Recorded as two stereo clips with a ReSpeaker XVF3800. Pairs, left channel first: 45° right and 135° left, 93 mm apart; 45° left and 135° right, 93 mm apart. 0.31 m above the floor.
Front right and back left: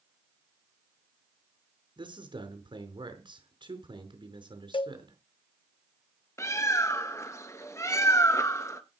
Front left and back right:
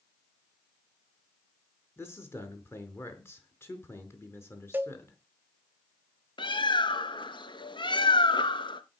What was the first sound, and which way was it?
A man speaking, 110° left.